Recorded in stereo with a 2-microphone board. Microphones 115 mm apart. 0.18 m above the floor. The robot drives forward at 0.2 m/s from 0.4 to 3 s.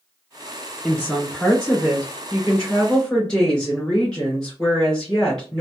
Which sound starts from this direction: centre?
A woman speaking, at 0.8 s.